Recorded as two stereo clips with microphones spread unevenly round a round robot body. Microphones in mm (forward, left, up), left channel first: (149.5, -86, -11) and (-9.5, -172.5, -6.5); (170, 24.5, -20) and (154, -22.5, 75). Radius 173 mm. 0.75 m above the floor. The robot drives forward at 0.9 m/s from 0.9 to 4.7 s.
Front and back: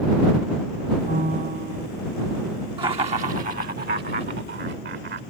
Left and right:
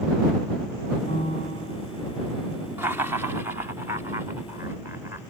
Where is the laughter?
135° left; by 5.2 s 160° left.